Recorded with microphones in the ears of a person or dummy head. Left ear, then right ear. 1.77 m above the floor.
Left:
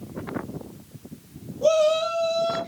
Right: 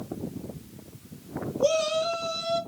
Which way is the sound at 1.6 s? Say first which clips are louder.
Left 5 dB; 15° left (ahead or behind).